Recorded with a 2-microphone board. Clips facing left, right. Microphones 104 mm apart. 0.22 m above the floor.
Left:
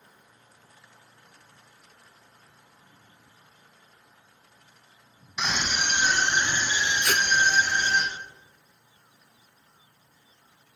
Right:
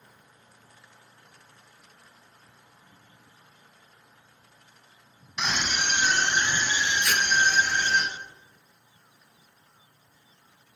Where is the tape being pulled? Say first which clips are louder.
Left 2 dB; 45° left (ahead or behind), 0.6 m.